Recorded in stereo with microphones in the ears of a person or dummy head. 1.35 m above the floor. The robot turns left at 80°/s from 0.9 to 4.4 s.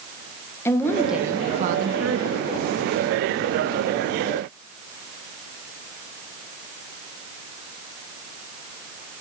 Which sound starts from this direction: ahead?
A woman speaking, at 0.7 s.